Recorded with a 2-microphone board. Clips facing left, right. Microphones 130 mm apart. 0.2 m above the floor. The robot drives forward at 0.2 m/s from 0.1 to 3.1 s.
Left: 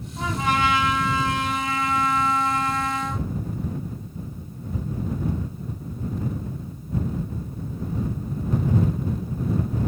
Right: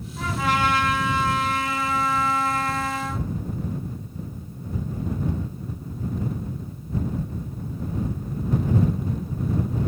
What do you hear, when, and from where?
0.2 s a trumpet: 20° left (ahead or behind), 1.5 m